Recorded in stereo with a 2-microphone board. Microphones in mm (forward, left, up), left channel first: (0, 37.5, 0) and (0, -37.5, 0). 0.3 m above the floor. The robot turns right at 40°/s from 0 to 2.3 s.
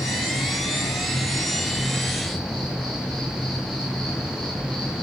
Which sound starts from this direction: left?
An insect, at 0.0 s.